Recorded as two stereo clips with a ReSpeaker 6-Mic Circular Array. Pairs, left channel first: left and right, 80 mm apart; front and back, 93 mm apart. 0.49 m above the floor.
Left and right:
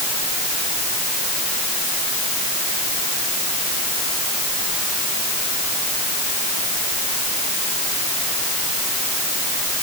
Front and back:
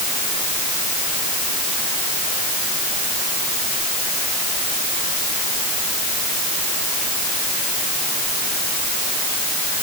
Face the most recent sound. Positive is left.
No sound to turn to.